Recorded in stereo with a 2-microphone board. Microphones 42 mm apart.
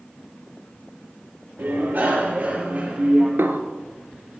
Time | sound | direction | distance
1.6 | a bicycle bell | 60° right (ahead or behind) | 6.5 m
3.4 | a snare drum | 85° right | 1.3 m